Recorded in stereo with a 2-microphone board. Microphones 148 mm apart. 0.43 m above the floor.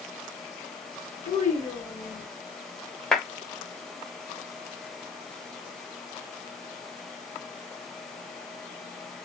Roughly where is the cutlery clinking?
No cutlery clinking in this recording.